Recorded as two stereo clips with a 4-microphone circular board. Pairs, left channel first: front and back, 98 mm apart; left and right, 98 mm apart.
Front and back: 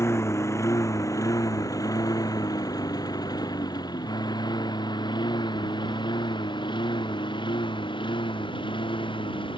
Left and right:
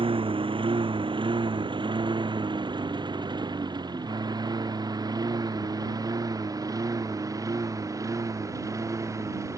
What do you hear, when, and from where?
0.0 s a lawn mower: 65° right; by 9.6 s 30° right